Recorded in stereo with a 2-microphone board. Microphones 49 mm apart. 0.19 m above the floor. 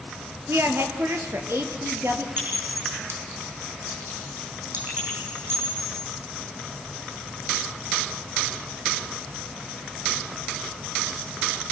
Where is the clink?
50° right (ahead or behind), 6.5 m.